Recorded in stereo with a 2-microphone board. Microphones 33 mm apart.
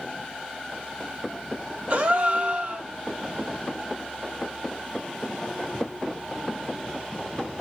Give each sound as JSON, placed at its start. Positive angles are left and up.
{"t": 1.9, "sound": "a gasp", "side_deg": -50, "distance_m": 0.6}